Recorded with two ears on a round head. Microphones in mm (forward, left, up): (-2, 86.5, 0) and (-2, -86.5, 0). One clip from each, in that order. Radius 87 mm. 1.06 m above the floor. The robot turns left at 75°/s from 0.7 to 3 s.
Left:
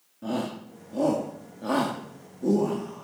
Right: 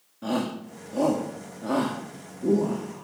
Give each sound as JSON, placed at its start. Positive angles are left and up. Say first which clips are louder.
{"t": 0.2, "sound": "a shout", "louder": "right 2 dB", "side_deg": -45, "distance_m": 2.5}